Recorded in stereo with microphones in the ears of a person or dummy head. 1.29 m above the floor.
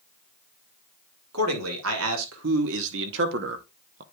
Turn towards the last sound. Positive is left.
turn(degrees=-35)  # may be behind; listen again after turning